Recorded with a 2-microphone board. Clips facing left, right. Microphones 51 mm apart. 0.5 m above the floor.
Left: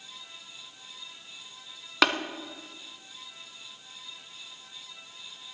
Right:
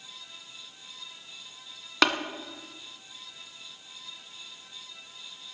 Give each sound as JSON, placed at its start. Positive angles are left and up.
{"t": 2.0, "sound": "tapping", "side_deg": 0, "distance_m": 1.1}